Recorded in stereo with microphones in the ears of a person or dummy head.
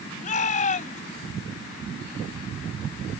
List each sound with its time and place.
0.2 s a shout: 45° left (ahead or behind)